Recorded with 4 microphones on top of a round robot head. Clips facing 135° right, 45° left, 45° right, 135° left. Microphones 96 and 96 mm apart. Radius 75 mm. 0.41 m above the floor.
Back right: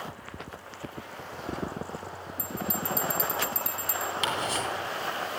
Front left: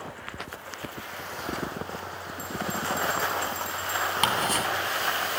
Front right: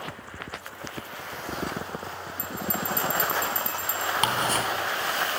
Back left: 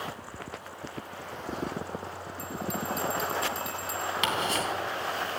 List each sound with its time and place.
2.4 s a bell: 100° right, 2 m
4.2 s ticking: 5° left, 2.5 m